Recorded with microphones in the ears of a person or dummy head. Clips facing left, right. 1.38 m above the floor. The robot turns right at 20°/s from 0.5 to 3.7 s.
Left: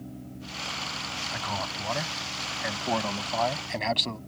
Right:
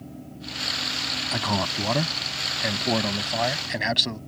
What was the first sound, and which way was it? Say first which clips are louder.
A man speaking: right 8 dB; 65° right.